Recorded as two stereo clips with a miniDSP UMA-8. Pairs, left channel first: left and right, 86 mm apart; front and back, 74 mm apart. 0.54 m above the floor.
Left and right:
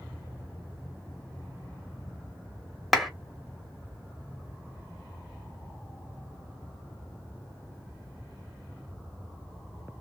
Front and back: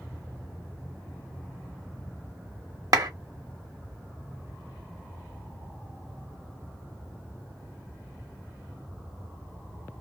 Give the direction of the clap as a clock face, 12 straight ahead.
6 o'clock.